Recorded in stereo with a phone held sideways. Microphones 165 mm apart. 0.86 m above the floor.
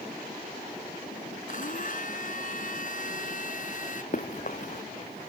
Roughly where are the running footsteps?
Left.